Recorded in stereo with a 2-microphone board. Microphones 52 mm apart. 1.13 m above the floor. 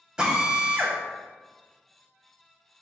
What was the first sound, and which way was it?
A drill, 15° right (ahead or behind).